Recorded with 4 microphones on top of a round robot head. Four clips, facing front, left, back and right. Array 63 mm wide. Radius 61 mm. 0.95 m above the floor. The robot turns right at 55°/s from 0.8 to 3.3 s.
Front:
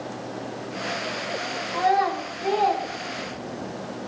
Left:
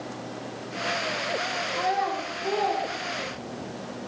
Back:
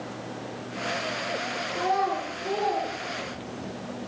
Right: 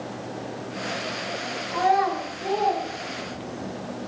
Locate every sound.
1.7 s a child speaking: 55° right, 4 m; by 3.7 s 30° left, 4 m